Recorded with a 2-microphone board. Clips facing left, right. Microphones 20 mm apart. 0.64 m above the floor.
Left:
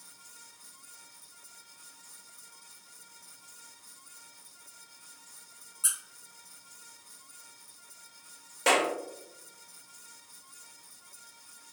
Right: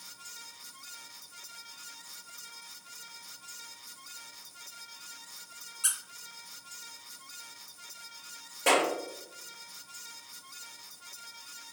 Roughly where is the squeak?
Right.